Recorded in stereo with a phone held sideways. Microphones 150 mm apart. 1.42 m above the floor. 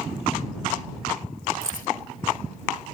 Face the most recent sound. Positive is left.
turn(degrees=70)  # may be behind; listen again after turning